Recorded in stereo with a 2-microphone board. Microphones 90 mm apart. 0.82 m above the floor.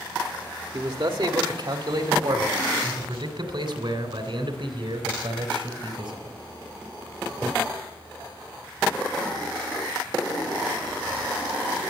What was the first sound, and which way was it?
A man speaking, 60° right (ahead or behind).